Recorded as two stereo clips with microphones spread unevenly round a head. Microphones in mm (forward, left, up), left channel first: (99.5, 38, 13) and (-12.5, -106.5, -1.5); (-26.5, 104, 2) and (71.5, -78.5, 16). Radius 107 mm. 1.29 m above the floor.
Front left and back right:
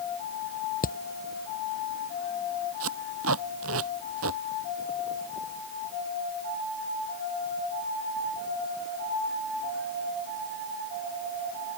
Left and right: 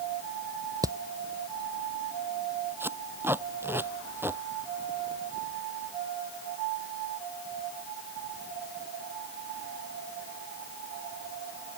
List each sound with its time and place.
0.8 s hammering: 10° left
2.8 s tape being pulled: 140° right